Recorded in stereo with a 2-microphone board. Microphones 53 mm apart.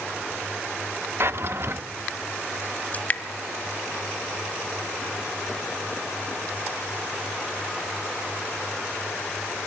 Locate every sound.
1.2 s a drawer: 50° right (ahead or behind), 0.6 m
2.9 s dripping: 30° left (ahead or behind), 1.3 m